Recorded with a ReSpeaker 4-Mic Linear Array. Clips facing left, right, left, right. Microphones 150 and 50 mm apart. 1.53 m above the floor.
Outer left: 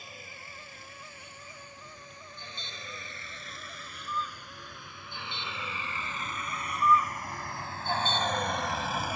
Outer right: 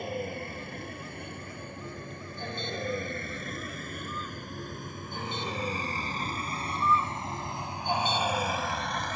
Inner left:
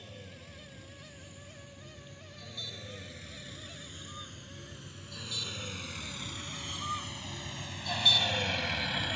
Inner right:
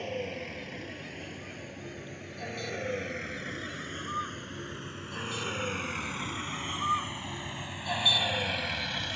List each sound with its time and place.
0.0 s a vehicle: 60° right (ahead or behind); by 9.2 s 10° left (ahead or behind)